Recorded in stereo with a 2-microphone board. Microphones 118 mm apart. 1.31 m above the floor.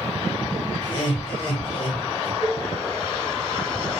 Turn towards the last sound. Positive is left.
turn(degrees=10)  # may be behind; listen again after turning